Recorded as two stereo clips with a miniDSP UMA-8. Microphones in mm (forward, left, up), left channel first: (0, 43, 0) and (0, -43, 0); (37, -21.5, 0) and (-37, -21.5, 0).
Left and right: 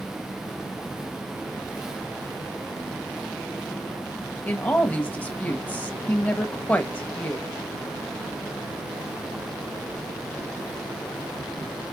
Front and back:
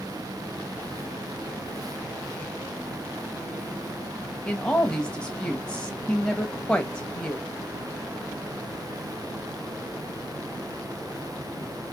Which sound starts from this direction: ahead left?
A woman speaking, at 4.4 s.